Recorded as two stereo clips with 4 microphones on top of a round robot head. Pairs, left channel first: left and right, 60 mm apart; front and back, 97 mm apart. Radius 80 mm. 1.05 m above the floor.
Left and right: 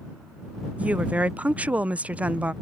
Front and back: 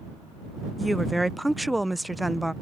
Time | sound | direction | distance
0.8 | a woman speaking | 90° right | ?